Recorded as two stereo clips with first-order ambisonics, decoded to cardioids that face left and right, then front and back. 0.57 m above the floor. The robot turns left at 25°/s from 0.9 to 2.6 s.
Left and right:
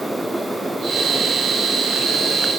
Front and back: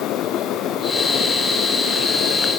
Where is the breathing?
No breathing in this recording.